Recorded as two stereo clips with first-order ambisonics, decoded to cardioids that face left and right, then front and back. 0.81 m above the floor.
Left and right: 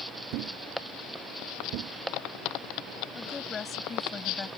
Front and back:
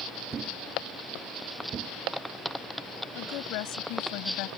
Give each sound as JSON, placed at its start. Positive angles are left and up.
{"t": 0.3, "sound": "a thud", "azimuth_deg": -115}
{"t": 3.1, "sound": "a woman speaking", "azimuth_deg": 20}